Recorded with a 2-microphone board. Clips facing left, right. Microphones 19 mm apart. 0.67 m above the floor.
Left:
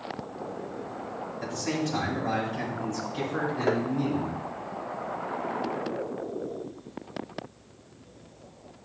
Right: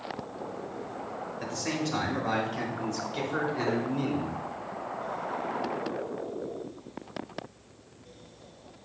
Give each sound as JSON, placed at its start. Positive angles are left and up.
{"t": 1.4, "sound": "a man speaking", "side_deg": -55, "distance_m": 3.5}
{"t": 3.7, "sound": "tapping", "side_deg": 45, "distance_m": 0.8}